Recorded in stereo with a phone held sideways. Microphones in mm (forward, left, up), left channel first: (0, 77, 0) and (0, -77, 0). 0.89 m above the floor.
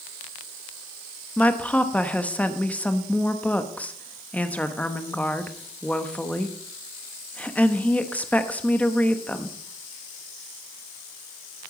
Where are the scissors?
I don't hear scissors.